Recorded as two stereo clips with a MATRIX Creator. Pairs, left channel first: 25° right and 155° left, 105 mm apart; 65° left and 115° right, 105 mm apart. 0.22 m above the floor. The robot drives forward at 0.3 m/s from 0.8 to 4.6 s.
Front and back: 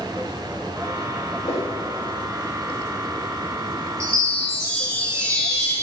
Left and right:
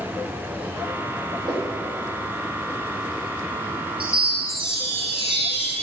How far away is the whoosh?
About 4 m.